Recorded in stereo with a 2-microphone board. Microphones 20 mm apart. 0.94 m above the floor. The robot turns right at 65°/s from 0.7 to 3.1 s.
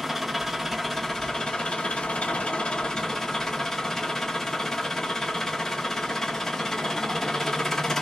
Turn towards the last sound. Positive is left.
turn(degrees=155)